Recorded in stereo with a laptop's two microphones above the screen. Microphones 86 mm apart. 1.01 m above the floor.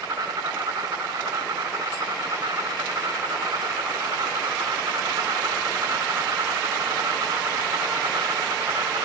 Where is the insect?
50° right (ahead or behind), 3 m.